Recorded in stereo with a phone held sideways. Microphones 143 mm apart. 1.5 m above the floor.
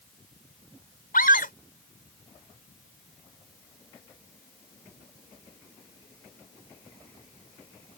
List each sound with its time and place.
1.1 s a scream: 80° left